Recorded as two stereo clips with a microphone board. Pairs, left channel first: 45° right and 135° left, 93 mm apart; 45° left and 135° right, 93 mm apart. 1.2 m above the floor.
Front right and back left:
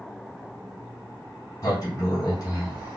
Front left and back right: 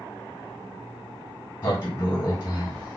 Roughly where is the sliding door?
Ahead.